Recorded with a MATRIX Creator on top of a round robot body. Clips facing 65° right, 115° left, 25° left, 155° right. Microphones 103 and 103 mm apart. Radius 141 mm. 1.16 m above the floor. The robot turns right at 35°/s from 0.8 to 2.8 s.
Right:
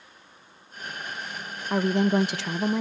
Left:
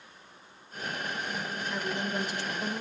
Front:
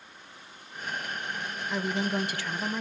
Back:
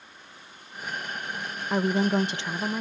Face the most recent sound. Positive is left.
turn(degrees=-75)